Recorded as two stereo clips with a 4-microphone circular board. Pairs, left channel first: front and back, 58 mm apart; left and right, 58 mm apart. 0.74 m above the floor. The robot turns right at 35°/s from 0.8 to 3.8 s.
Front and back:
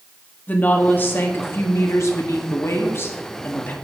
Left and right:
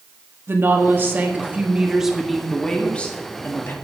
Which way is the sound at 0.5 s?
50° right.